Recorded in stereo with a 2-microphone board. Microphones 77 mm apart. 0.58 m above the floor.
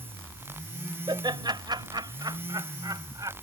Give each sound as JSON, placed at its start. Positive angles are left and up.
{"t": 1.1, "sound": "laughter", "side_deg": -70}